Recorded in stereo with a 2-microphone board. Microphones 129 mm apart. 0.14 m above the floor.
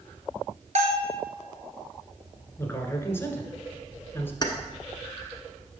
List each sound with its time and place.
0.8 s a bell: 65° right (ahead or behind), 1.1 m
2.6 s a man speaking: 20° left (ahead or behind), 1.4 m
4.4 s keys jangling: 35° left (ahead or behind), 1.1 m